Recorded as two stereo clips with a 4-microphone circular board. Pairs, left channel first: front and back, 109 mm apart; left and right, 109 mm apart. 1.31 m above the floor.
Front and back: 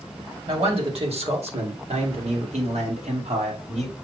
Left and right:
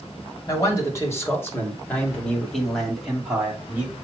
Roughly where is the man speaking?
Behind left.